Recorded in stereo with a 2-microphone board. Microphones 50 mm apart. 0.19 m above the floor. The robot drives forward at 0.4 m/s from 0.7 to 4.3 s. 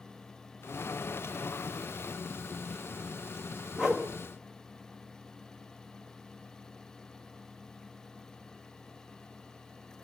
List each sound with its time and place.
3.8 s a whoosh: 15° right (ahead or behind), 2 m